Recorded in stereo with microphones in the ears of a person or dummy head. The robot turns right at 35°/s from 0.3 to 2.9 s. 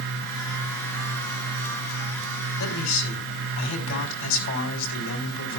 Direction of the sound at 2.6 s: 80° left.